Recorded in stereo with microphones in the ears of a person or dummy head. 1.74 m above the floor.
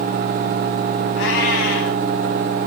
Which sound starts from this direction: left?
A cat meowing, at 1.1 s.